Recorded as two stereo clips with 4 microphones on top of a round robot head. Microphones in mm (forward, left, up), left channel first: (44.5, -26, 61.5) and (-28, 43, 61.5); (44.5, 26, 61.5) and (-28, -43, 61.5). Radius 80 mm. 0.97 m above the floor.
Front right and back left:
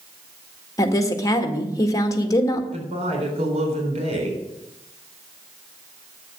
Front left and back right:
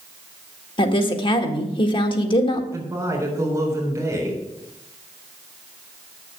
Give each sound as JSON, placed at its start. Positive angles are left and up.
{"t": 0.8, "sound": "a woman speaking", "azimuth_deg": 10, "distance_m": 1.7}
{"t": 2.7, "sound": "a woman speaking", "azimuth_deg": 160, "distance_m": 4.0}